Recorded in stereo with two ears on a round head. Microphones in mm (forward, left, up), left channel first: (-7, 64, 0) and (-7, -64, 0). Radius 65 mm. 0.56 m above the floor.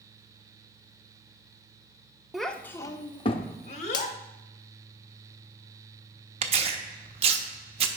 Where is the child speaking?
Centre (ahead or behind), 0.6 m; by 4.2 s 60° left (ahead or behind), 1.2 m.